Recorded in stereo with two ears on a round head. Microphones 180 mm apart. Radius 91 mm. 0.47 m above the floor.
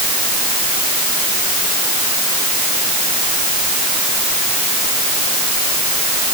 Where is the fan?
No fan in this recording.